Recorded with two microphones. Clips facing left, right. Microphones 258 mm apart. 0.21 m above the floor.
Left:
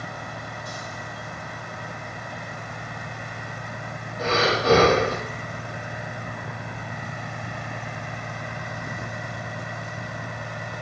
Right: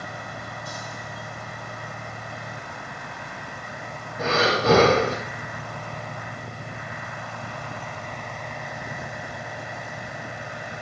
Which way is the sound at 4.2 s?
55° right (ahead or behind).